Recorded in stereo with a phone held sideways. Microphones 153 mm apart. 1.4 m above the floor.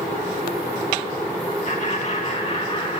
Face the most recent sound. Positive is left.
turn(degrees=40)  # may be behind; listen again after turning